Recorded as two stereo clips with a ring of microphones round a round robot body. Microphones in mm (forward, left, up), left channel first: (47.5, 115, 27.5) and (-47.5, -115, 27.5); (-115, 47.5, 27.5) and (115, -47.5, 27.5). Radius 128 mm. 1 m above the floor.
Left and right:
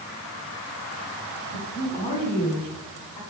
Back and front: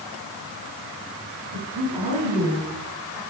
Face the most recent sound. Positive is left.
turn(degrees=-5)